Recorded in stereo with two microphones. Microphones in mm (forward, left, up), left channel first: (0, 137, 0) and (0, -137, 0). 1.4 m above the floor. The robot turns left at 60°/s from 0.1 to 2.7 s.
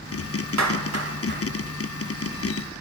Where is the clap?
85° right, 3 m; by 1.4 s 30° right (ahead or behind), 3 m.